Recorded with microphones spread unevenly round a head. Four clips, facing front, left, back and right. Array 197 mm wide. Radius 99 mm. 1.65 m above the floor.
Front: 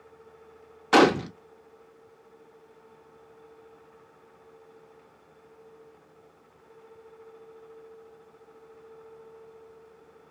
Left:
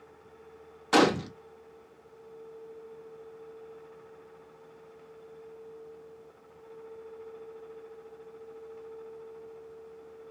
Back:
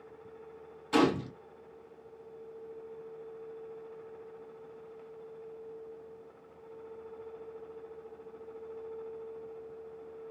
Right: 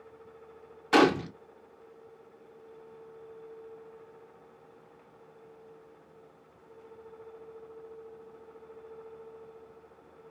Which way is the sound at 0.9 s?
5° left.